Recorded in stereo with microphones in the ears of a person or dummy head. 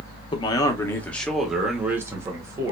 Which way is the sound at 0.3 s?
30° left (ahead or behind).